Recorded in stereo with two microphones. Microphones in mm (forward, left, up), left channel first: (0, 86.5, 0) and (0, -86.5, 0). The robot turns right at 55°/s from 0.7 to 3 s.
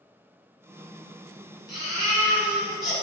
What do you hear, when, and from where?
1.7 s a baby crying: 20° right (ahead or behind), 1.1 m; by 3.0 s centre (ahead or behind), 1.1 m